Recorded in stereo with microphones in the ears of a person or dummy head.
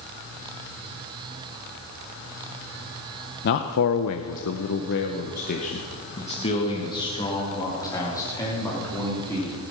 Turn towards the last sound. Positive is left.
turn(degrees=15)  # may be behind; listen again after turning